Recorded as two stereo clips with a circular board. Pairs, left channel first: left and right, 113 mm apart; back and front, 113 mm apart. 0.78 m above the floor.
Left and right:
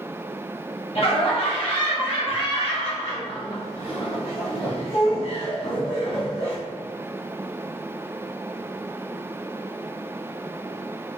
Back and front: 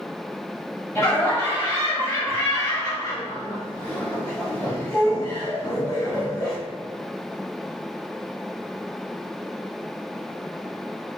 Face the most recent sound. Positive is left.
turn(degrees=105)